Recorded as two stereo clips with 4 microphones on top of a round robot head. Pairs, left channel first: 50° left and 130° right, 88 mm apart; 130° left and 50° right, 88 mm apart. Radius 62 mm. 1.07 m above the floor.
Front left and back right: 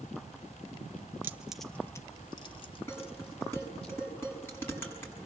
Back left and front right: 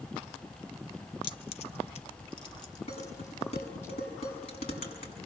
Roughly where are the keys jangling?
Behind.